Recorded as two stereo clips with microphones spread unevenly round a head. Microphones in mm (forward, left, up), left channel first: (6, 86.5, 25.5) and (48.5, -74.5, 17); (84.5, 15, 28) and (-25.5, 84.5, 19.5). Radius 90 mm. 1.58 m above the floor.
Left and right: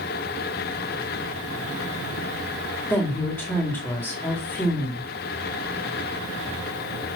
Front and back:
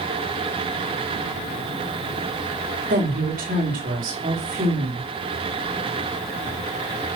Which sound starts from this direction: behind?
A woman speaking, at 2.9 s.